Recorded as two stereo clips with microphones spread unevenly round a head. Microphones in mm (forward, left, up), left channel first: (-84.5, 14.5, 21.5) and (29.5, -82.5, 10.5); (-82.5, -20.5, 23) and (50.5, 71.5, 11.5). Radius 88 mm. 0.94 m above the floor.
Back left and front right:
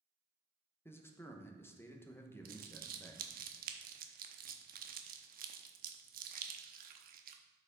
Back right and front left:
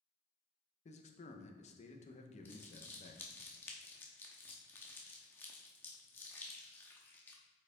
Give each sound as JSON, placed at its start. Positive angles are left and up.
{"t": 0.8, "sound": "a man speaking", "azimuth_deg": -150, "distance_m": 0.9}
{"t": 2.5, "sound": "crumpling", "azimuth_deg": -65, "distance_m": 0.7}